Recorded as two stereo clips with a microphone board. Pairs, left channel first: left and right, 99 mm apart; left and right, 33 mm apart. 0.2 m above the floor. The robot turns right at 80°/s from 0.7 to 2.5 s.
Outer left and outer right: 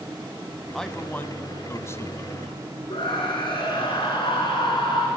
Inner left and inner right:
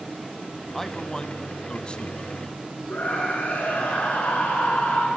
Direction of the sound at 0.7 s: Centre (ahead or behind).